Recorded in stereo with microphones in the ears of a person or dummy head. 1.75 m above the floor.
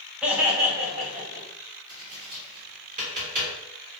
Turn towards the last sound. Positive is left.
turn(degrees=-30)  # may be behind; listen again after turning